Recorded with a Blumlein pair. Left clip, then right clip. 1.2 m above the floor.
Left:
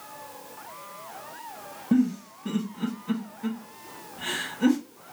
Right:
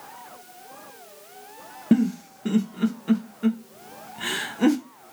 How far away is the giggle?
About 0.8 m.